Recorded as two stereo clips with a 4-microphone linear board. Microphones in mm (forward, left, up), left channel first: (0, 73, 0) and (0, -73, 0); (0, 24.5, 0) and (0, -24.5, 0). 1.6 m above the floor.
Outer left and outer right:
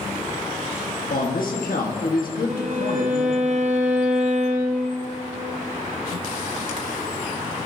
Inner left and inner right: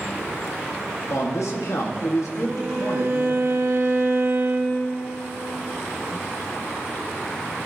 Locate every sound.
1.1 s a man speaking: 85° left, 1.3 m
2.5 s a violin: 55° right (ahead or behind), 1.0 m